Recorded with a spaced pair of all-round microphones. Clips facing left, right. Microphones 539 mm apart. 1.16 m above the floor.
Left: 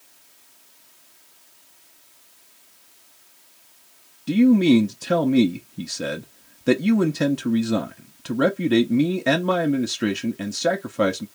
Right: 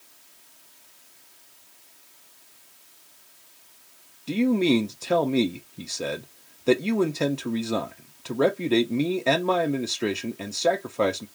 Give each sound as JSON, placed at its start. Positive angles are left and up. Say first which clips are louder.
{"t": 4.3, "sound": "a man speaking", "louder": "left 6 dB", "side_deg": 40, "distance_m": 0.5}